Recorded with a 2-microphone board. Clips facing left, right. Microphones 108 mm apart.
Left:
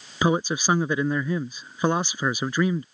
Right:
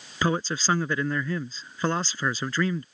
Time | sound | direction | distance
0.2 | a man speaking | 15° left (ahead or behind) | ?